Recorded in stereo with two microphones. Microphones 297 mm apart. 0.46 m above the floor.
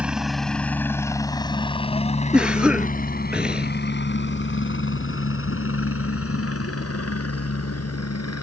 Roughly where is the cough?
Centre.